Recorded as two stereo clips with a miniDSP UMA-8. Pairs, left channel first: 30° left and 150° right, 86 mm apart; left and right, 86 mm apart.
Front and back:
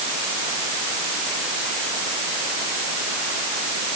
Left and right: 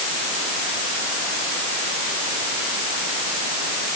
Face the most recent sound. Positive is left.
No sound to turn to.